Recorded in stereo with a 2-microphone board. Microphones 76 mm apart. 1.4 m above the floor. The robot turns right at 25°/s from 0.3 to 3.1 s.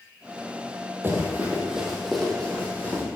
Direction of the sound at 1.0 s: 25° right (ahead or behind).